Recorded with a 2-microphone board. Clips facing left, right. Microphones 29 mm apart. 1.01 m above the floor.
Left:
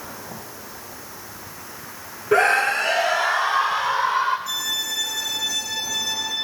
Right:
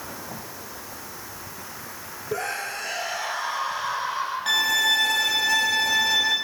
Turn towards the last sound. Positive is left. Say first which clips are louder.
# right 5 dB
turn(degrees=-60)  # may be behind; listen again after turning